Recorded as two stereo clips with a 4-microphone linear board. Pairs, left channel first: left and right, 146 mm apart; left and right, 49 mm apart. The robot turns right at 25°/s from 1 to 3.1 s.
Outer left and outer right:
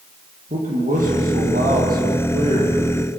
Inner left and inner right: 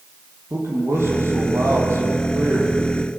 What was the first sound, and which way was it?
A man speaking, 105° right.